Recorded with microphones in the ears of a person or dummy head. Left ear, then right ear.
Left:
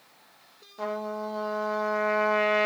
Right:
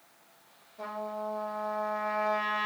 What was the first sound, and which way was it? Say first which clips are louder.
A trumpet: left 4 dB; 55° left (ahead or behind).